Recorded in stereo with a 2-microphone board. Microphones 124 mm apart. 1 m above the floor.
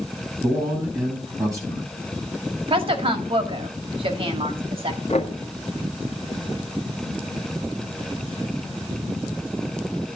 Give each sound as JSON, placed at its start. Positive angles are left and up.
{"t": 0.4, "sound": "a man speaking", "side_deg": -30, "distance_m": 8.0}
{"t": 2.7, "sound": "a woman speaking", "side_deg": -50, "distance_m": 2.0}
{"t": 5.1, "sound": "knocking", "side_deg": 60, "distance_m": 2.5}